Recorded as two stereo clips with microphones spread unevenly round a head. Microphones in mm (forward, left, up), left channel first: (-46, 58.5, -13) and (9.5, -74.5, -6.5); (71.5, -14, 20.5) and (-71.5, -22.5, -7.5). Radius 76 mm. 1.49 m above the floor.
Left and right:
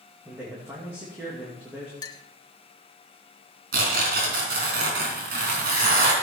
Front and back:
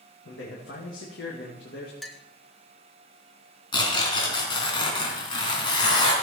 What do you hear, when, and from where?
0.2 s a man speaking: 10° left, 2.5 m
2.0 s a clink: 70° left, 0.8 m
3.7 s tearing paper: 50° right, 3.5 m